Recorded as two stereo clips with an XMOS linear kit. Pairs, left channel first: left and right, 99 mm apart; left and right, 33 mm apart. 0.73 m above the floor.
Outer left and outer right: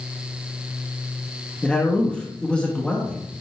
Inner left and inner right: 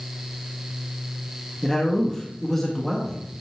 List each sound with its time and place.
1.6 s a man speaking: 10° left (ahead or behind), 1.2 m